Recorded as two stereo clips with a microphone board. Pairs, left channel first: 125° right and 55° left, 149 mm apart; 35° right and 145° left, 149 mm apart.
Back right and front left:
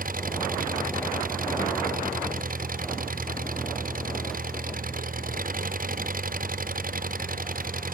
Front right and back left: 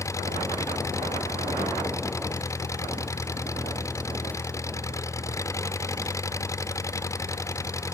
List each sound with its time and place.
0.0 s an engine running: 35° left